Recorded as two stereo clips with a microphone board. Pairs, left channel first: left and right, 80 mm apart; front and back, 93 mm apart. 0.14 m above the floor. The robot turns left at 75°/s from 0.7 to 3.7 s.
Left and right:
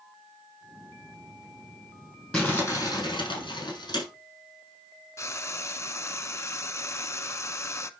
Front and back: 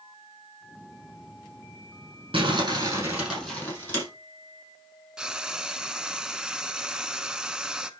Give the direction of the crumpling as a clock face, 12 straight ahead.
6 o'clock.